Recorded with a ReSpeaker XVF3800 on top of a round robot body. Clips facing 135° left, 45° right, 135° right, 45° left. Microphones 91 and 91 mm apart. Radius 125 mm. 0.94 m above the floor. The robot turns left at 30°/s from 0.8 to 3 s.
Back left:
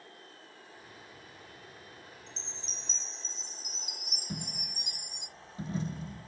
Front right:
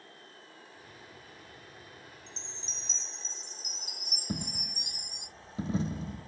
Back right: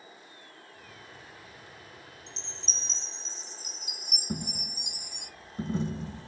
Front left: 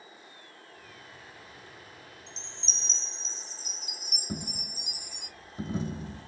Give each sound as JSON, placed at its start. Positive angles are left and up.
{"t": 2.3, "sound": "a chime", "azimuth_deg": -40, "distance_m": 1.8}
{"t": 4.3, "sound": "a dropped coin", "azimuth_deg": -40, "distance_m": 1.8}